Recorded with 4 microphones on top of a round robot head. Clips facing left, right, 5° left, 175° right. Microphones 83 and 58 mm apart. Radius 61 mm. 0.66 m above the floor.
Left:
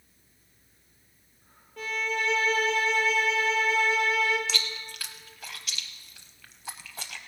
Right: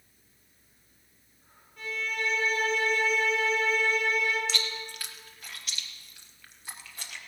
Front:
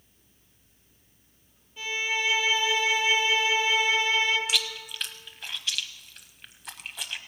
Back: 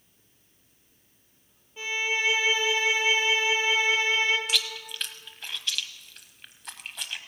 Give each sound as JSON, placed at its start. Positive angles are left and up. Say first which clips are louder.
{"t": 1.8, "sound": "a violin", "louder": "left 3 dB, back 1 dB", "azimuth_deg": 115, "distance_m": 2.0}
{"t": 4.5, "sound": "chewing", "louder": "even, even", "azimuth_deg": 90, "distance_m": 0.8}